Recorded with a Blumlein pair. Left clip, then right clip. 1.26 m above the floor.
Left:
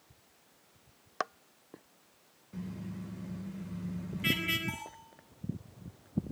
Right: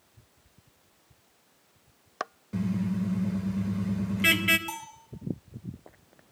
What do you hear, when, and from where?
2.5 s a car horn: 60° right, 3 m
4.7 s a bell: 65° right, 9 m